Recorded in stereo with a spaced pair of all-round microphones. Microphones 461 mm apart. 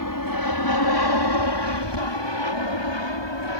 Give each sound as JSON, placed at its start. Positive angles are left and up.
{"t": 0.0, "sound": "an aircraft", "side_deg": 45}